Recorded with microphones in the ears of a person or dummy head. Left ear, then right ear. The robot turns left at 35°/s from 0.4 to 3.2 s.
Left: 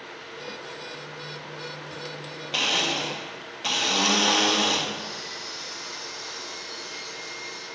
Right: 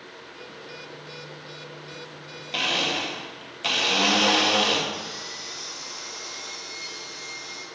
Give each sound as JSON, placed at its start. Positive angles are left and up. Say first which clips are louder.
{"t": 2.5, "sound": "a blender", "louder": "even", "side_deg": 5, "distance_m": 1.6}
{"t": 4.9, "sound": "sawing", "louder": "even", "side_deg": -65, "distance_m": 4.0}